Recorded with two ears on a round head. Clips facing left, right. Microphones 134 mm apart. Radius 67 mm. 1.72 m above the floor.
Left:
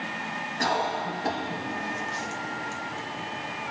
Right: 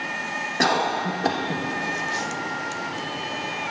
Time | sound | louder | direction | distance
0.6 | a cough | right 4 dB | 65° right (ahead or behind) | 0.9 m